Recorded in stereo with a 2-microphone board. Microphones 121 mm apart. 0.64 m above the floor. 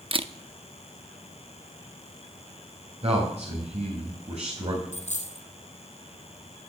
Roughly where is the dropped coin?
Left.